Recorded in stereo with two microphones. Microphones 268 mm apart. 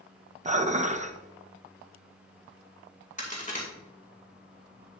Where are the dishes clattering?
25° right (ahead or behind), 0.5 m.